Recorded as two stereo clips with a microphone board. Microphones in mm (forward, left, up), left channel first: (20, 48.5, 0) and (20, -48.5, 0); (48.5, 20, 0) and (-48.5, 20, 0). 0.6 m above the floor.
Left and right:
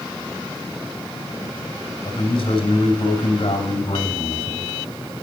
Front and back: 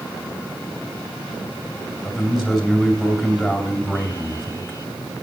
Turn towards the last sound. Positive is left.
turn(degrees=95)